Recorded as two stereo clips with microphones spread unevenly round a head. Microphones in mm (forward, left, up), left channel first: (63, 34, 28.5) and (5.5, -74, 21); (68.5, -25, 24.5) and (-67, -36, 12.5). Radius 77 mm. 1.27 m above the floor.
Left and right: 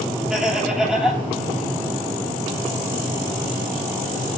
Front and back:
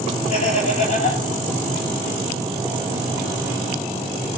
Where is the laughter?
35° right, 7.5 m.